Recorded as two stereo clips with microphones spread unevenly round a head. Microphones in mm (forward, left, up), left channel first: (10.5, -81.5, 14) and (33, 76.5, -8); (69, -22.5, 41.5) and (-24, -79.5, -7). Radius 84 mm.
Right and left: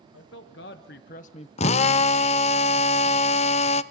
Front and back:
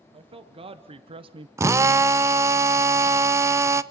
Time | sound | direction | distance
0.1 | a man speaking | 120° right | 2 m
1.6 | a drill | 145° right | 0.6 m